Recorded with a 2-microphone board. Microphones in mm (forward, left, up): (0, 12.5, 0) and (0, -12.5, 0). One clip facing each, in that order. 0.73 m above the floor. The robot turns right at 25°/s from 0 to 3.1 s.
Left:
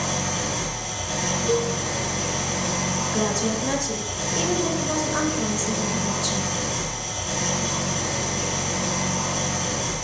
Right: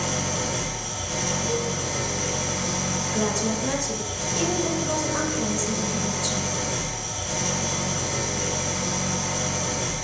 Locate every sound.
0.0 s an engine running: 55° left, 2.5 m; by 10.0 s 135° left, 2.5 m
1.5 s a cowbell: 75° left (ahead or behind), 0.8 m; by 1.7 s 85° left, 0.8 m
3.1 s a woman speaking: 15° left (ahead or behind), 1.1 m